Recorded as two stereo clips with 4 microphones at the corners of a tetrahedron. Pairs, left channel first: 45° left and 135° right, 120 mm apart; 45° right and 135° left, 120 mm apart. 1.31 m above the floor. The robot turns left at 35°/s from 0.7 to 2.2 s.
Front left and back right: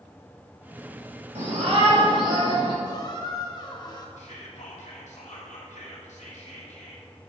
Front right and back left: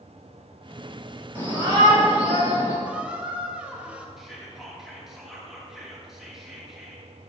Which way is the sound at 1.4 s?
160° right.